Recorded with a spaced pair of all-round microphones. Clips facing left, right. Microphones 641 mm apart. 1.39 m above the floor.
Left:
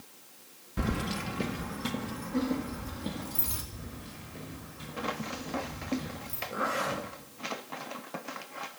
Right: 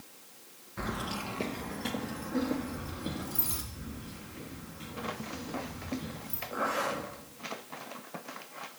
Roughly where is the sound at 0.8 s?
Left.